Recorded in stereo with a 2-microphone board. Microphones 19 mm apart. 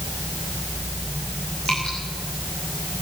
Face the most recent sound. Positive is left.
turn(degrees=85)